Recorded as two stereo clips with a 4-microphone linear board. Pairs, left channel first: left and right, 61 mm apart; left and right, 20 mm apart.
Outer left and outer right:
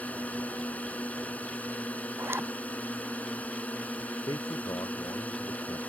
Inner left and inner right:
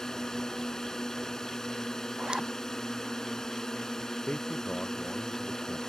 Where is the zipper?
40° right (ahead or behind).